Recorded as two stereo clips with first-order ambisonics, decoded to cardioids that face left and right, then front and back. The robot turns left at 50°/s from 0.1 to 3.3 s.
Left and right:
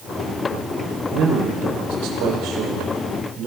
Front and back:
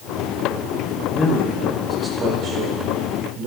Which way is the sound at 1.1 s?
55° right.